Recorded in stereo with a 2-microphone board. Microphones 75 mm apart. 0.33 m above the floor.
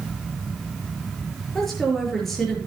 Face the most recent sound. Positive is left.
turn(degrees=5)  # may be behind; listen again after turning